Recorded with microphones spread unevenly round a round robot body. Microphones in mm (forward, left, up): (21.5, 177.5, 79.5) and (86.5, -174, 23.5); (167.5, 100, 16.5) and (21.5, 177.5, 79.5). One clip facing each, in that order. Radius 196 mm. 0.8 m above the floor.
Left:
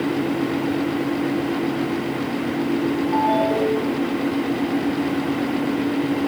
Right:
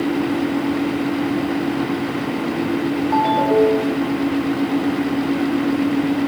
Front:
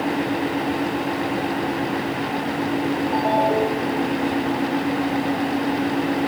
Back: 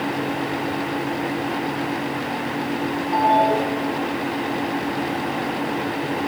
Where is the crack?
I don't hear a crack.